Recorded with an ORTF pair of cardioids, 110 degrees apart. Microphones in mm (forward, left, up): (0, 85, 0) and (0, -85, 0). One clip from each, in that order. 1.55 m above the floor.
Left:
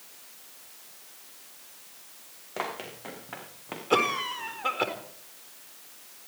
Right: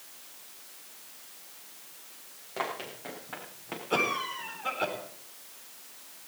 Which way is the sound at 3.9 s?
45° left.